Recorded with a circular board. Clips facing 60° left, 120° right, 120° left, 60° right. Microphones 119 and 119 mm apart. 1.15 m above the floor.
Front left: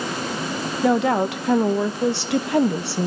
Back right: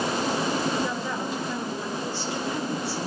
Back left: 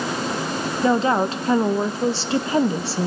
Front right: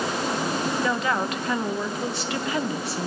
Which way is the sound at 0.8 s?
60° left.